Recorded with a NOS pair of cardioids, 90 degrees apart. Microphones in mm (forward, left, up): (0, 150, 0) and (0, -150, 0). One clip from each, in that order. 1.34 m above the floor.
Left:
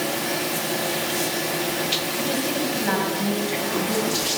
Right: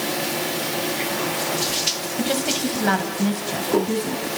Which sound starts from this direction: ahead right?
A woman speaking, at 2.2 s.